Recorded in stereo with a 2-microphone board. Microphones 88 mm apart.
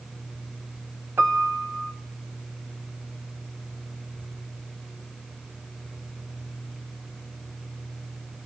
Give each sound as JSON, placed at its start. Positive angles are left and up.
{"t": 1.2, "sound": "a piano", "side_deg": -25, "distance_m": 2.0}